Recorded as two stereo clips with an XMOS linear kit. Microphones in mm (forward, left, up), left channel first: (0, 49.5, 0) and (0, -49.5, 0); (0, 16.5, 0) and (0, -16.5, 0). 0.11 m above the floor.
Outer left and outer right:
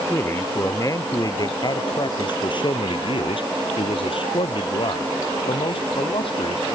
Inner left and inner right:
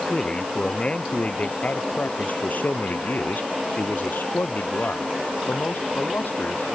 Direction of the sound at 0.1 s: 25° left (ahead or behind).